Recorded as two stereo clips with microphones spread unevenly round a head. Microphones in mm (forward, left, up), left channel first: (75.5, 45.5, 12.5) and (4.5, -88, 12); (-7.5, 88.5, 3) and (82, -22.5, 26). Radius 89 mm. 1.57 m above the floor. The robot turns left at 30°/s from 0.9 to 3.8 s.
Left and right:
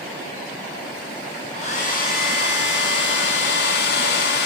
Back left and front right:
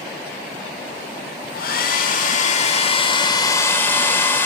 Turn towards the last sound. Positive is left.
turn(degrees=55)